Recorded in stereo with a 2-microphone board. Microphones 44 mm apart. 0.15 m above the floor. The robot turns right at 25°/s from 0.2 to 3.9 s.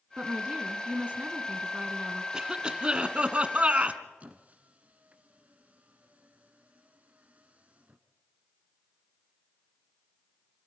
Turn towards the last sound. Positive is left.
turn(degrees=-35)  # may be behind; listen again after turning